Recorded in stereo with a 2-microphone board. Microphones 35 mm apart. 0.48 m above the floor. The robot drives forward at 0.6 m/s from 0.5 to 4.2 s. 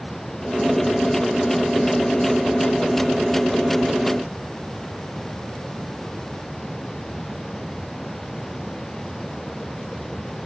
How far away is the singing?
I don't hear singing.